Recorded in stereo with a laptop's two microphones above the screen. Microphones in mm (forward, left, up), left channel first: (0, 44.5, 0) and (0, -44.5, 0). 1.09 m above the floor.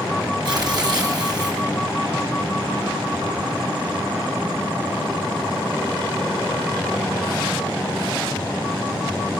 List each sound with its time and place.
0.5 s tearing paper: 45° right (ahead or behind), 3 m